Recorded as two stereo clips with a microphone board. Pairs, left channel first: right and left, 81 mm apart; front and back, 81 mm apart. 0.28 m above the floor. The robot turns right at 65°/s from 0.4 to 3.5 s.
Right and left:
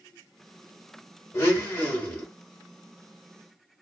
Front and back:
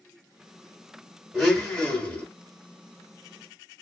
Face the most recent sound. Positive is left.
turn(degrees=45)